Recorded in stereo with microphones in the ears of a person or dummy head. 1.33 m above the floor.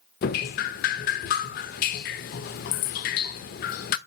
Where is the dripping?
40° left (ahead or behind), 0.6 m.